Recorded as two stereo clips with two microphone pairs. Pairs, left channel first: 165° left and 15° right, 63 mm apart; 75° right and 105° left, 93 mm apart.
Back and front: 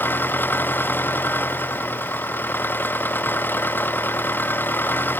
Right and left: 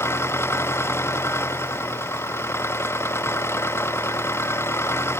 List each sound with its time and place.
0.0 s an engine running: 140° right